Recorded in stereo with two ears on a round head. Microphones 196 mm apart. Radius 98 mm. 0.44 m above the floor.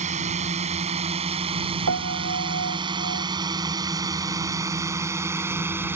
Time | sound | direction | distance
0.0 | a drone | 35° right (ahead or behind) | ?
1.9 | a piano | 75° right (ahead or behind) | ?